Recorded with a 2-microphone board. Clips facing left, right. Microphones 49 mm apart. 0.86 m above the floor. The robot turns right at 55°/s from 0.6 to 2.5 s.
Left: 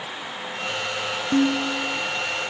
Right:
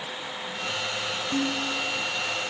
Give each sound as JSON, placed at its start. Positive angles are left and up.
{"t": 1.3, "sound": "dishes clattering", "azimuth_deg": 90}